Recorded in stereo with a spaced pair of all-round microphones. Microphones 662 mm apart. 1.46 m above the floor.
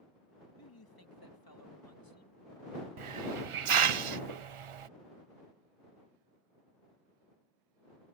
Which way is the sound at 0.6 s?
30° left (ahead or behind).